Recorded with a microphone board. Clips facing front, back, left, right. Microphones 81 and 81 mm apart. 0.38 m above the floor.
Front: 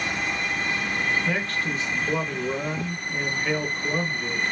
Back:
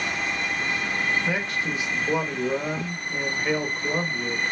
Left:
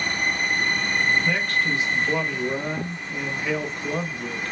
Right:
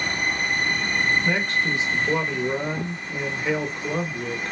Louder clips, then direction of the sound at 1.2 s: Even, even; 120° right.